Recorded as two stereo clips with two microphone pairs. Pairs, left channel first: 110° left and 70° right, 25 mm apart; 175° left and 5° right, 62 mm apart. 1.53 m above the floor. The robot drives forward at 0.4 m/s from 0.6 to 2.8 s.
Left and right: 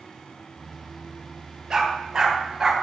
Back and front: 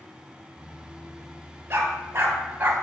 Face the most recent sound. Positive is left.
turn(degrees=-15)